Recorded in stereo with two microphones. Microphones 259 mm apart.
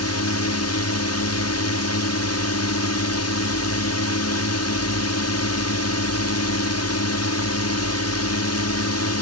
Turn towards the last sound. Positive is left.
turn(degrees=75)  # may be behind; listen again after turning